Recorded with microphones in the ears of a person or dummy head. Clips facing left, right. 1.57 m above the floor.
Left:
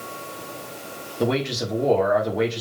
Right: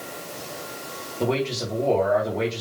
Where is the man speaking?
20° left (ahead or behind), 3.5 m.